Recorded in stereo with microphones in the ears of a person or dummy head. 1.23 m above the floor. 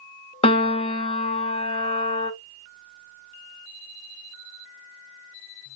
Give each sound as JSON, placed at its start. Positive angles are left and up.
{"t": 0.4, "sound": "a piano", "side_deg": 25, "distance_m": 0.7}